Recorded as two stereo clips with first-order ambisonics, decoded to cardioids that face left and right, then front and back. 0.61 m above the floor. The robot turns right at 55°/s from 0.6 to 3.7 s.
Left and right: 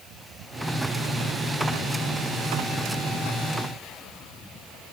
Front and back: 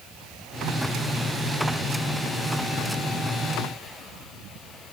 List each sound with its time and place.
Only background noise.